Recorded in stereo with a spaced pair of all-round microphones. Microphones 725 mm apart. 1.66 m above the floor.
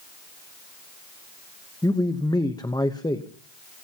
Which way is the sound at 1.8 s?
5° left (ahead or behind).